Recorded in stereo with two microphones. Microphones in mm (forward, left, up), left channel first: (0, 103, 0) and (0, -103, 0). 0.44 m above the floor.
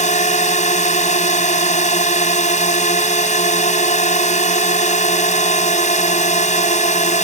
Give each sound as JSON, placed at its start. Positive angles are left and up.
{"t": 0.0, "sound": "a drone", "side_deg": 35}